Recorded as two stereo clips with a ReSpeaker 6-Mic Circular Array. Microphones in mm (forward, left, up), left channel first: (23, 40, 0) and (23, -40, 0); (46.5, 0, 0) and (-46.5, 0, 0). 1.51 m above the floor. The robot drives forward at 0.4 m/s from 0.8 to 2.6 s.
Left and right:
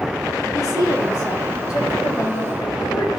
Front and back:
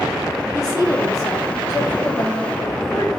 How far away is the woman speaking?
About 5 m.